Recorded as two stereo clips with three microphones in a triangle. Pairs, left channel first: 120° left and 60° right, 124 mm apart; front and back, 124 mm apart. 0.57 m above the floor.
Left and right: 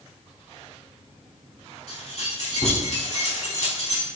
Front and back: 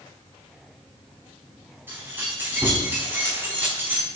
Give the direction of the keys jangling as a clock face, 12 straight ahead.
8 o'clock.